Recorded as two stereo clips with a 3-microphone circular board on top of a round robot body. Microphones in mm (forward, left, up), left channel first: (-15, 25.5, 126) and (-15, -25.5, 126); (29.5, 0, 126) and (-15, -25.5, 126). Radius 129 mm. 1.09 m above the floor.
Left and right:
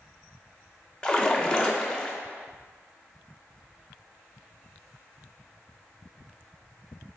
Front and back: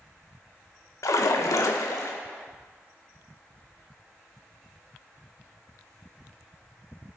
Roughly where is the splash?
Ahead.